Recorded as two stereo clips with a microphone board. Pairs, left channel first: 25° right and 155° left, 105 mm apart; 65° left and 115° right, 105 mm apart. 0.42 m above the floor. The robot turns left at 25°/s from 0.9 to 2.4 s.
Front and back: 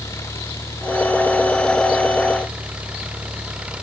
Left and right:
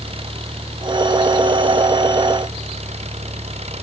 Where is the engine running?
85° right; by 3.8 s 125° right.